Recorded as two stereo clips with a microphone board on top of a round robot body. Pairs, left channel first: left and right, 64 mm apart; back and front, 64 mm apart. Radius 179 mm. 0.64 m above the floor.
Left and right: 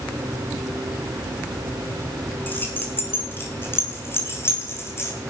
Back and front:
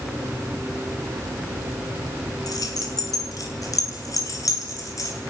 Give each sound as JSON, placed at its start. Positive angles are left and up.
{"t": 2.5, "sound": "keys jangling", "azimuth_deg": 150, "distance_m": 6.5}